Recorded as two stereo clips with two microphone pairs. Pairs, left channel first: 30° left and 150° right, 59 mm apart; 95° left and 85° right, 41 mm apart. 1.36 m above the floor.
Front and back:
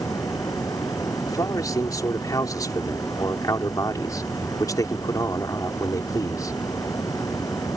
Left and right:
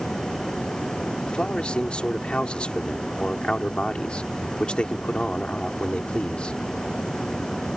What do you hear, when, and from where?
0.0 s running water: 25° left
1.3 s a man speaking: 35° left